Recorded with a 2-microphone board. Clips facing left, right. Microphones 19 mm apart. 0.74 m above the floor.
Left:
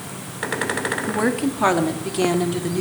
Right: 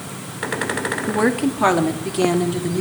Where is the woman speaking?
15° right (ahead or behind), 1.0 m; by 2.8 s 5° left (ahead or behind), 1.9 m.